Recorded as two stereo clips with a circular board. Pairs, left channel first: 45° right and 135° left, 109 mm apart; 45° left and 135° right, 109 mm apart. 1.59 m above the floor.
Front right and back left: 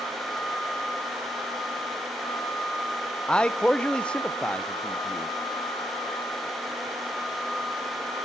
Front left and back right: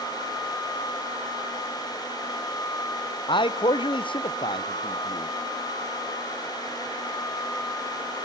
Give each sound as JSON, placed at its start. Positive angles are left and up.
{"t": 3.3, "sound": "a man speaking", "azimuth_deg": 35, "distance_m": 0.5}